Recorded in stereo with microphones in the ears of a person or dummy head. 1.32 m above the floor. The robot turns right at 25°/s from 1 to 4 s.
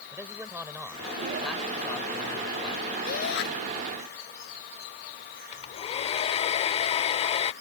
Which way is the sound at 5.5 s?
30° left (ahead or behind).